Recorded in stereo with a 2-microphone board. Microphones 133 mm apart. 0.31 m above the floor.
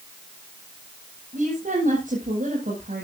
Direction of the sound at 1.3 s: 80° right.